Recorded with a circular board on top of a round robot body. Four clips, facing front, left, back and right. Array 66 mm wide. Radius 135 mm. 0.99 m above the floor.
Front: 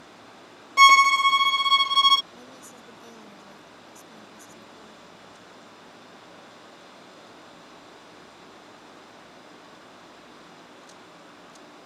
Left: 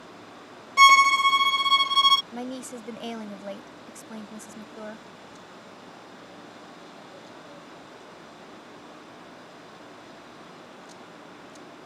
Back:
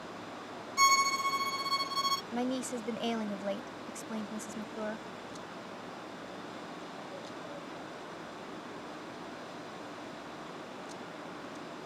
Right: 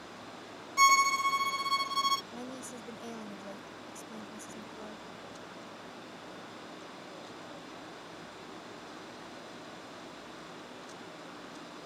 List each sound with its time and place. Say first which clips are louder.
0.8 s a violin: left 9 dB, front 12 dB; 35° left
2.3 s a woman speaking: left 7 dB, back 12 dB; 145° left